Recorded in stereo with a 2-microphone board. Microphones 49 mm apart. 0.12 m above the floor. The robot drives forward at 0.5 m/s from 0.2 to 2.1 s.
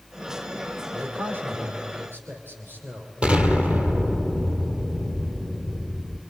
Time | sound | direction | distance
0.9 | a man speaking | 45° right (ahead or behind) | 4.5 m
3.2 | an explosion | 25° right (ahead or behind) | 1.5 m